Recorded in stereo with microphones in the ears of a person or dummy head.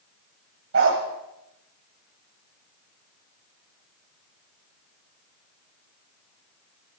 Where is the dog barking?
75° right (ahead or behind), 3.5 m.